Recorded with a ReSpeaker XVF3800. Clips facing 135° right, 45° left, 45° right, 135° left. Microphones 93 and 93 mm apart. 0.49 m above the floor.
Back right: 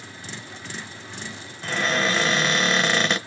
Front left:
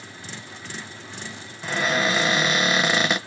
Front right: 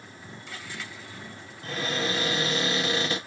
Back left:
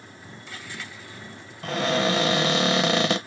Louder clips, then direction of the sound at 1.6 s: Front left 1 dB, back left 7 dB; 130° left.